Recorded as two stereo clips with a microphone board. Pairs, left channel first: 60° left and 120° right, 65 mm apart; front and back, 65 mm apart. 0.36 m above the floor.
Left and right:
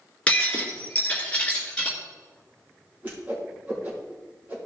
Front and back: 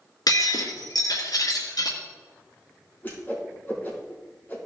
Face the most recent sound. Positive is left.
turn(degrees=-60)